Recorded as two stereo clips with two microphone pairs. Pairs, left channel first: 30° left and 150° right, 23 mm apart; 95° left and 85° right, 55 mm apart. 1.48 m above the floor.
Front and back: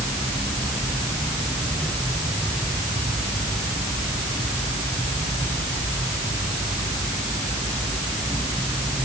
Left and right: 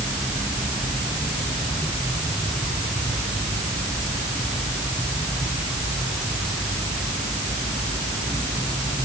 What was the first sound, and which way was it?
Only background noise.